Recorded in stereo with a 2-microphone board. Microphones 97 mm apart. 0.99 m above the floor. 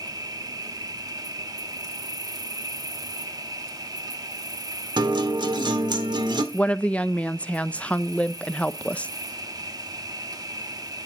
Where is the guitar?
50° right (ahead or behind), 1.5 m.